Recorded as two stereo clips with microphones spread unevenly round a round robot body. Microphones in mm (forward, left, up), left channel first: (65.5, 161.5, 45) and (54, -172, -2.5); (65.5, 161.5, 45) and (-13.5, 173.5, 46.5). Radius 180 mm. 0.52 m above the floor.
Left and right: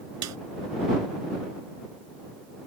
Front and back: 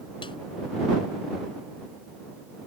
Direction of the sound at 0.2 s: 55° right.